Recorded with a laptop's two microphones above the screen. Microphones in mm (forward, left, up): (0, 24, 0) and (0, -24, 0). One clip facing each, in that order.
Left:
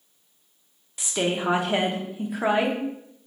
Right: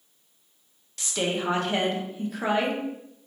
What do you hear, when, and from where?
1.0 s a woman speaking: 15° left (ahead or behind), 0.6 m